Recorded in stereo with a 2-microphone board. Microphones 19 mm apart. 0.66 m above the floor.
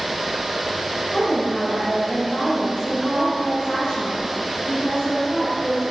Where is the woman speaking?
55° left (ahead or behind), 3 m.